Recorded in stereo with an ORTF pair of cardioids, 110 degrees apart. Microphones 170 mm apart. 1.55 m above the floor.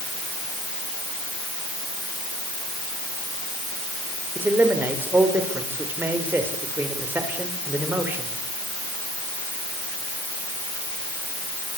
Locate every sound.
4.3 s a man speaking: 10° right, 6.5 m